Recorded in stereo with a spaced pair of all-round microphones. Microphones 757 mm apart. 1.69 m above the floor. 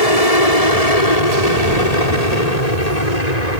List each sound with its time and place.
0.0 s an aircraft: 45° left (ahead or behind); by 3.6 s 55° left (ahead or behind)